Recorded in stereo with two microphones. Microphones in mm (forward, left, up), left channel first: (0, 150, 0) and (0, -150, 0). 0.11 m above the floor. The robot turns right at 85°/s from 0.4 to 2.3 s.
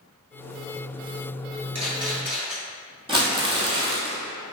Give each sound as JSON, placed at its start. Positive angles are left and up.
{"t": 1.8, "sound": "a camera shutter", "side_deg": -55, "distance_m": 1.0}
{"t": 3.1, "sound": "crumpling", "side_deg": -15, "distance_m": 0.7}